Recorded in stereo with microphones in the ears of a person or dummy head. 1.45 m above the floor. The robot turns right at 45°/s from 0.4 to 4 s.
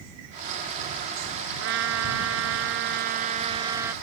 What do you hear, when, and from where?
1.6 s a trumpet: 115° right; by 3.9 s 10° right